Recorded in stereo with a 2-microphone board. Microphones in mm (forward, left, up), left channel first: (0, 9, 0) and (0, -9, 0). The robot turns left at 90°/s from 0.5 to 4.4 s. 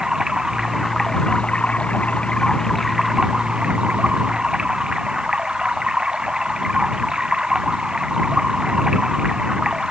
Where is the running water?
140° right; by 9.9 s 130° right.